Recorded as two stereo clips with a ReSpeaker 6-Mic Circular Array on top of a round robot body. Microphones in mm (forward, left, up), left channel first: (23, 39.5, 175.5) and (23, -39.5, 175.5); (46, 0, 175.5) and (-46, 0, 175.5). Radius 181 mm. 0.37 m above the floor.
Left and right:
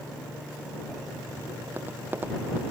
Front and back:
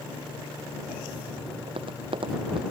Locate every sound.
1.7 s tapping: 155° right